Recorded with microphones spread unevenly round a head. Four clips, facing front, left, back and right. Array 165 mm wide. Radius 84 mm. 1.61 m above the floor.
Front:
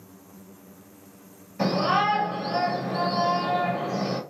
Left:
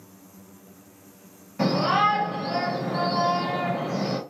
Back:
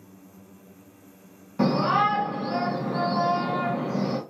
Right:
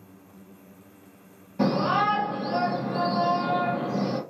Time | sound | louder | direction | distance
1.6 | a shout | left 1 dB, back 1 dB | 170° right | 1.6 m